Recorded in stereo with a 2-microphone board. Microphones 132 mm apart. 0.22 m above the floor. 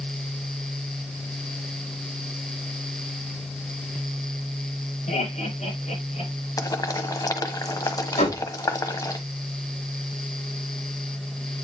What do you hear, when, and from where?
5.1 s laughter: 65° left (ahead or behind), 7.5 m; by 6.3 s 70° left (ahead or behind), 8 m
6.6 s boiling: 30° left (ahead or behind), 0.9 m
8.2 s a door slam: 70° left (ahead or behind), 6 m